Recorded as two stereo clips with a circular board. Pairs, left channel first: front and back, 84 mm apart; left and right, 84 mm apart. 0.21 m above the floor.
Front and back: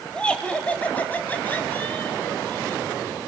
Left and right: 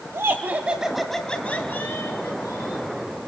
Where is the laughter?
70° right, 1.4 m; by 2.9 s 65° left, 2.0 m.